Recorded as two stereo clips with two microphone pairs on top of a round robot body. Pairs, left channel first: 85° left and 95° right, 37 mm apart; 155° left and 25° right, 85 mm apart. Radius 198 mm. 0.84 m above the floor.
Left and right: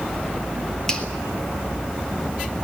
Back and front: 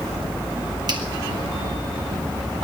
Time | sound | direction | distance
0.9 | a finger snap | 10° left | 3.5 m